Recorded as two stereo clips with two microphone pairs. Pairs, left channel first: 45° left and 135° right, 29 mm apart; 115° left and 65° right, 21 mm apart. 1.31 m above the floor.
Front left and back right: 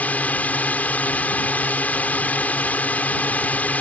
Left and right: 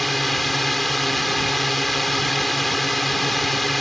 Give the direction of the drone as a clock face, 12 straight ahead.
11 o'clock.